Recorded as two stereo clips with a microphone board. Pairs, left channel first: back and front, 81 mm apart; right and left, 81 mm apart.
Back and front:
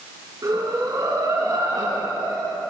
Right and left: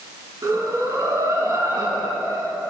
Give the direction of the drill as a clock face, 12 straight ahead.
I don't hear a drill.